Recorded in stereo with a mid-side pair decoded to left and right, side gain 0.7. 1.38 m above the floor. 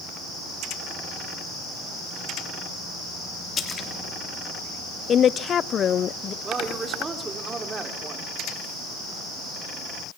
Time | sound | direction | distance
3.6 | a splash | 35° left | 2.5 m
5.1 | a woman speaking | 35° left | 0.5 m
6.4 | a woman speaking | 25° right | 3.5 m